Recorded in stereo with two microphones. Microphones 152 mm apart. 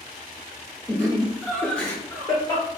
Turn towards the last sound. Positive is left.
turn(degrees=25)  # may be behind; listen again after turning